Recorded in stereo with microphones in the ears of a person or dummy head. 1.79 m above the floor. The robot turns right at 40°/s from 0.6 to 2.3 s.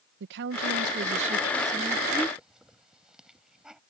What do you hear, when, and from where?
0.2 s a woman speaking: 60° right; by 2.3 s 5° left
2.4 s a hiss: 5° right (ahead or behind)